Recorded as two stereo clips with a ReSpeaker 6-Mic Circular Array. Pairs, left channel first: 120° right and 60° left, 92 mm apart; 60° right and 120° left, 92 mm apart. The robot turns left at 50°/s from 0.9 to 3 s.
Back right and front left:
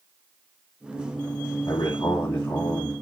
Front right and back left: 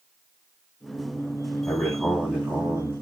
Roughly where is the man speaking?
Behind right.